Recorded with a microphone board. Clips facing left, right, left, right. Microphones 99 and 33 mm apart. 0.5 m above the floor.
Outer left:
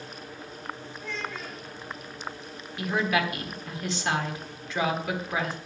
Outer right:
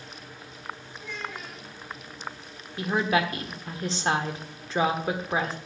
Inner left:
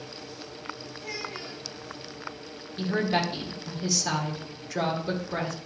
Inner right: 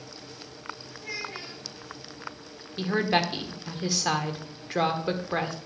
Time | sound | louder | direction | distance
1.0 | a child speaking | outer left 2 dB, inner right 1 dB | 20° right (ahead or behind) | 5.5 m
2.8 | a woman speaking | outer right 2 dB, inner right 1 dB | 35° right (ahead or behind) | 1.4 m